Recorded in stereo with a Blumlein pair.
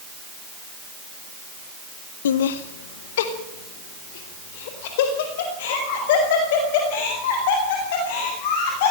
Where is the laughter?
60° left, 0.9 m; by 8.9 s 50° left, 9.5 m.